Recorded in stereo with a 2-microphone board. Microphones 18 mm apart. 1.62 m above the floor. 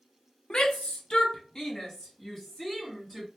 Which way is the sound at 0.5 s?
75° left (ahead or behind).